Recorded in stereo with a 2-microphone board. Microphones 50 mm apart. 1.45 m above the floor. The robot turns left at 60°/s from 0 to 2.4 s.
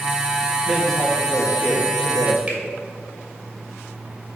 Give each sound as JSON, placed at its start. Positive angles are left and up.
{"t": 0.7, "sound": "a man speaking", "azimuth_deg": -170, "distance_m": 1.6}
{"t": 2.5, "sound": "a finger snap", "side_deg": -30, "distance_m": 2.0}